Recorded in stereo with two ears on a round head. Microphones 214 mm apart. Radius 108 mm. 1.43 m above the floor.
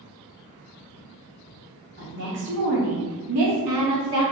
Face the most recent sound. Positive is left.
turn(degrees=-65)  # may be behind; listen again after turning